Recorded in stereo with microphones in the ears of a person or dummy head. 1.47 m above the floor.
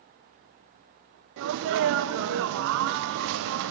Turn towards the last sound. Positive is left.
turn(degrees=-65)  # may be behind; listen again after turning